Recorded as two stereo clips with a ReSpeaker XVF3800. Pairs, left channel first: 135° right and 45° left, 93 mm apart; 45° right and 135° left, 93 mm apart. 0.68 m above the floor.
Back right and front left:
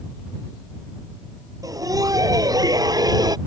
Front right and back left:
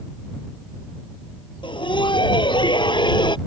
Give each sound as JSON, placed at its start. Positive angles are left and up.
{"t": 1.6, "sound": "laughter", "azimuth_deg": -10}